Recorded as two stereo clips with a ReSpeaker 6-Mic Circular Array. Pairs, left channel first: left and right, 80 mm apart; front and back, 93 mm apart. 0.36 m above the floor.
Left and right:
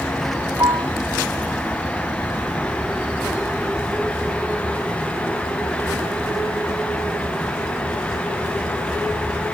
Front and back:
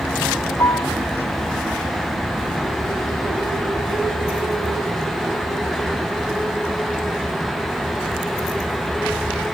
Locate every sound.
0.6 s a piano: 50° right